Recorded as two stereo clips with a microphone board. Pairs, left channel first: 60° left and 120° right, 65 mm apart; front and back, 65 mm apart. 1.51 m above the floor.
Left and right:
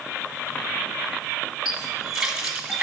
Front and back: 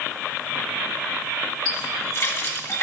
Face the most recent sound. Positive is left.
turn(degrees=-40)